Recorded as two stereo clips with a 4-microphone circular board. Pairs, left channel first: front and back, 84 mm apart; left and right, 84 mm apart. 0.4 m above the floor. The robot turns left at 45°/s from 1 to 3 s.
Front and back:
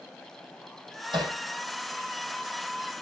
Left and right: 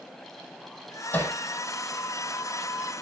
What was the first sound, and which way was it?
Hammering, 160° left.